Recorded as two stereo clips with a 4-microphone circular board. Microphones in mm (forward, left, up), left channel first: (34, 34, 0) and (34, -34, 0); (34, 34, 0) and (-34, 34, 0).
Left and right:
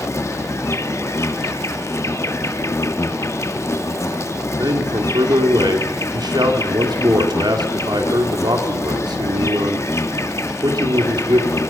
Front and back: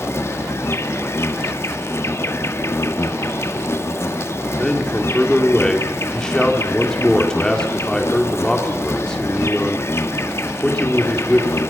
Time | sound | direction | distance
0.0 | an insect | 50° left | 1.3 m
4.6 | a man speaking | 80° right | 3.5 m